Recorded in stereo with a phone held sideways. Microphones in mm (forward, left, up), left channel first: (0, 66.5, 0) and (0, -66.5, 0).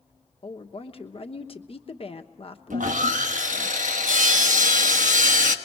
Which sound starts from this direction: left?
A woman speaking, at 0.4 s.